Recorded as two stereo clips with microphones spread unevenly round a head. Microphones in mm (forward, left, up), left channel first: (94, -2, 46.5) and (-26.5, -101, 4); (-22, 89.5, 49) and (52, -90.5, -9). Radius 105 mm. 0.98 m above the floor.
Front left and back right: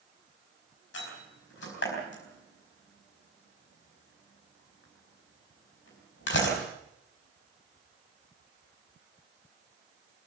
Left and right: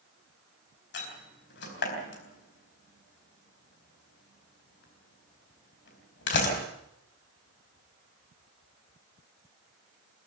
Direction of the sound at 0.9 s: 80° left.